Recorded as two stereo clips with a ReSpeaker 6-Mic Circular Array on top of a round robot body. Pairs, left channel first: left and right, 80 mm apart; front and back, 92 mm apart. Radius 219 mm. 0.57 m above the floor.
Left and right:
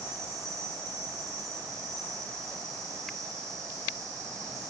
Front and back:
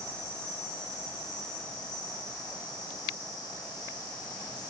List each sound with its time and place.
0.0 s an insect: 45° right, 4.5 m